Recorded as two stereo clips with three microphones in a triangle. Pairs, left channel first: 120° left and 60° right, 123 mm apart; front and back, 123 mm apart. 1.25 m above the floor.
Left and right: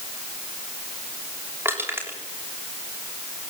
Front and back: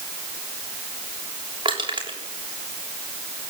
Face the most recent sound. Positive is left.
turn(degrees=-130)